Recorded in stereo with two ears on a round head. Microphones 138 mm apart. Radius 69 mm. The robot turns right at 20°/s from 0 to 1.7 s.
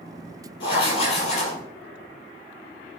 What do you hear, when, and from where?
0.6 s writing: 30° left (ahead or behind), 4 m; by 1.6 s 50° left (ahead or behind), 4 m